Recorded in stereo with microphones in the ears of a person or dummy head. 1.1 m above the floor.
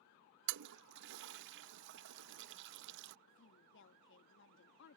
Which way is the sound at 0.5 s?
65° right (ahead or behind).